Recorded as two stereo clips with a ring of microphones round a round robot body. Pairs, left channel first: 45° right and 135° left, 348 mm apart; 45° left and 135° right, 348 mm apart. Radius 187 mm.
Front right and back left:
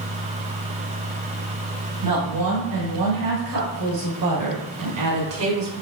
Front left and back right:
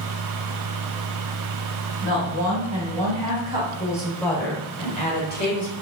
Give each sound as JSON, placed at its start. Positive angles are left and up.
{"t": 2.0, "sound": "a woman speaking", "azimuth_deg": 160, "distance_m": 2.0}